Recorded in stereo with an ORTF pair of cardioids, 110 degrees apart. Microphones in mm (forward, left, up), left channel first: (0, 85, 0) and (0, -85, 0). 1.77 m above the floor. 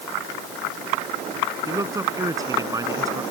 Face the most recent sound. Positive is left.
turn(degrees=-20)